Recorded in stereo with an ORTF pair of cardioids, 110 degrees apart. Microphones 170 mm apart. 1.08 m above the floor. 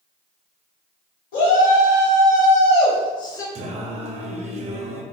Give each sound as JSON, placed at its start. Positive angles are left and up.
{"t": 1.3, "sound": "a shout", "azimuth_deg": 60, "distance_m": 1.6}
{"t": 3.5, "sound": "singing", "azimuth_deg": -40, "distance_m": 0.7}